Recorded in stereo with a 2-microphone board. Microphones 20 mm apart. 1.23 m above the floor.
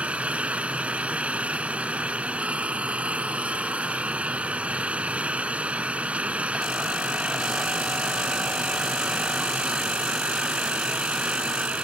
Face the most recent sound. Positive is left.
turn(degrees=-75)  # may be behind; listen again after turning